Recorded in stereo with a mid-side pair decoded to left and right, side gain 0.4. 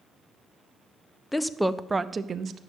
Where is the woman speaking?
15° left, 0.7 m; by 2.6 s 60° right, 0.7 m.